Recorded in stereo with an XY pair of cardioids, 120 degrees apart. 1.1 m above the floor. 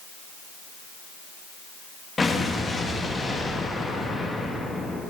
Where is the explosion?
20° left, 1.1 m.